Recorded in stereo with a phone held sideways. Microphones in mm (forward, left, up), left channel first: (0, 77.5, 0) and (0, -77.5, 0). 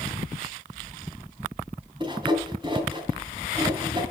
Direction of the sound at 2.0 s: 30° right (ahead or behind).